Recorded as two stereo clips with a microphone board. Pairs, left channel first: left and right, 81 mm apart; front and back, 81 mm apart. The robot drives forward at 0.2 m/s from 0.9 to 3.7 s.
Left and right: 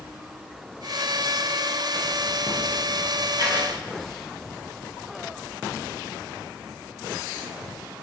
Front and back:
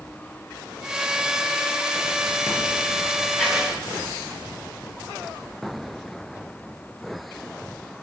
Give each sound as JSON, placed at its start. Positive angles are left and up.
{"t": 3.4, "sound": "writing", "azimuth_deg": -100, "distance_m": 1.7}